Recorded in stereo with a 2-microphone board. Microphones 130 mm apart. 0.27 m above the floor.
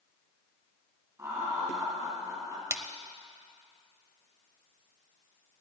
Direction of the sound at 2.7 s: 20° right (ahead or behind).